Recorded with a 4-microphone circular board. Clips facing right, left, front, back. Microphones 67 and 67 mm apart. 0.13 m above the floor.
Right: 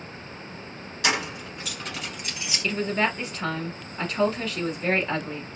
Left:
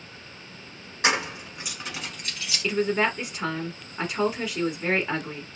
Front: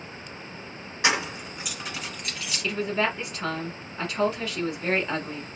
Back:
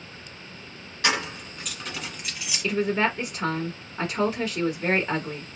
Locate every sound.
1.0 s keys jangling: 55° left, 1.1 m; by 2.6 s 115° right, 0.9 m
2.6 s a woman speaking: 150° left, 1.1 m